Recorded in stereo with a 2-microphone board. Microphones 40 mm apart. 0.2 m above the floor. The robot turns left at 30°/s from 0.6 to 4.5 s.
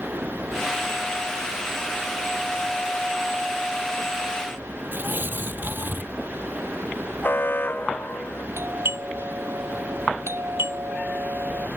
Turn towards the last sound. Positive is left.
turn(degrees=-75)  # may be behind; listen again after turning